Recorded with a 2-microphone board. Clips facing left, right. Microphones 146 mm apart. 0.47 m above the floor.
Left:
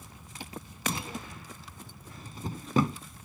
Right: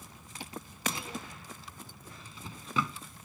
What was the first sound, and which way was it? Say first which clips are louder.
A drawer: left 3 dB; 45° left (ahead or behind).